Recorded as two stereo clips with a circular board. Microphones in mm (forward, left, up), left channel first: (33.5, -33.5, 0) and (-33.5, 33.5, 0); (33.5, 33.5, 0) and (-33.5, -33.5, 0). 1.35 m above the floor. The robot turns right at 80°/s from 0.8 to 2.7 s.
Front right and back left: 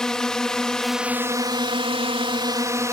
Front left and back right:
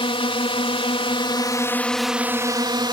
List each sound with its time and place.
0.0 s a drone: 35° left; by 2.9 s 170° right